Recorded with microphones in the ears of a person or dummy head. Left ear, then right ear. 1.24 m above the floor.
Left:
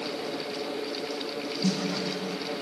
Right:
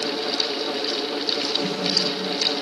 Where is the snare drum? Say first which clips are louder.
Right 4 dB; 75° left (ahead or behind), 1.4 m.